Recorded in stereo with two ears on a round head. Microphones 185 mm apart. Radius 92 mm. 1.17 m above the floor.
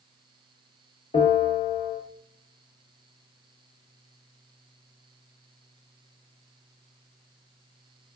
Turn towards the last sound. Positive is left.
turn(degrees=35)  # may be behind; listen again after turning